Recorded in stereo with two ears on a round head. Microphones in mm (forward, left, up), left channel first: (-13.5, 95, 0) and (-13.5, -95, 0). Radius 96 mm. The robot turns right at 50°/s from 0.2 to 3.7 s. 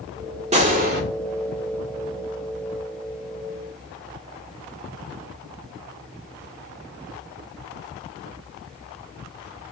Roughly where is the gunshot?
Right.